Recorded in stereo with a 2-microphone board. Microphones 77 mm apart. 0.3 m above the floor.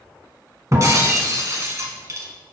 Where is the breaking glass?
40° right (ahead or behind), 1.1 m.